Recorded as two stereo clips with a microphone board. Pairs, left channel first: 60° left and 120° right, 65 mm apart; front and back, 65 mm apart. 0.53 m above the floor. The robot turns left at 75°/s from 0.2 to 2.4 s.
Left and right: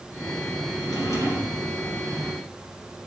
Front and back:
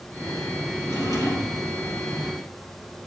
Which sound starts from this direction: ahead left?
A drawer, at 0.8 s.